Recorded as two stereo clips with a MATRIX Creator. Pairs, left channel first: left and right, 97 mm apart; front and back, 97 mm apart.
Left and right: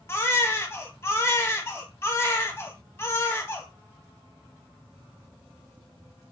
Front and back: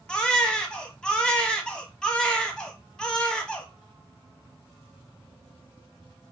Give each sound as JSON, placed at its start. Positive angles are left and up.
{"t": 0.1, "sound": "a baby crying", "azimuth_deg": 70, "distance_m": 0.8}